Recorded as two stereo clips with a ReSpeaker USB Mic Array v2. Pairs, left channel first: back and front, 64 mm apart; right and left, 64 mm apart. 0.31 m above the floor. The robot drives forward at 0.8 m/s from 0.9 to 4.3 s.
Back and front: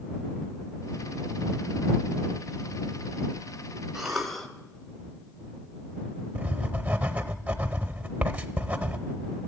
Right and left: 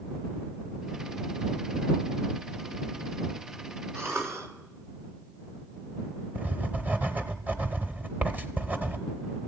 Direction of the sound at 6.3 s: 50° left.